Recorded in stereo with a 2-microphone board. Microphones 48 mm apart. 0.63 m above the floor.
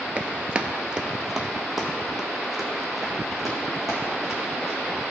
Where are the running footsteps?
30° right (ahead or behind), 0.6 m; by 4.8 s centre (ahead or behind), 3.5 m.